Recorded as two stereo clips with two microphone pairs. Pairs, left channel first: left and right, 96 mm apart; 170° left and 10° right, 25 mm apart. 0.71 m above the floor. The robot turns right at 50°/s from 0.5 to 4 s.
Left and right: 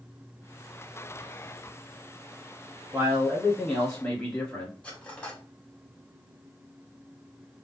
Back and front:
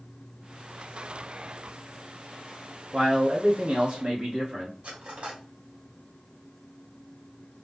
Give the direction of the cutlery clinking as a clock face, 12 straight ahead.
12 o'clock.